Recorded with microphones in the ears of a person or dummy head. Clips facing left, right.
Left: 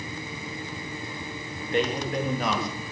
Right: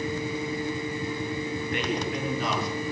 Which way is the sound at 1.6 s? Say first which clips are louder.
Left 7 dB; 30° left (ahead or behind).